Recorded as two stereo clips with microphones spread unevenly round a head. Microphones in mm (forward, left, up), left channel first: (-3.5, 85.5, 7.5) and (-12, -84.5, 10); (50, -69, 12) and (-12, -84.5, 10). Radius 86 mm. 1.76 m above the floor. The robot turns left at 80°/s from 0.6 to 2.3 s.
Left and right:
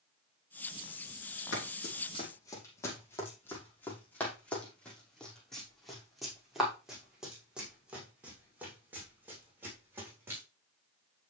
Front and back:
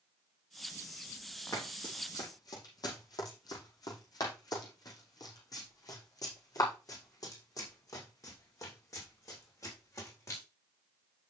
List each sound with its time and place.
1.5 s running footsteps: 85° left, 5 m; by 10.4 s 15° right, 7.5 m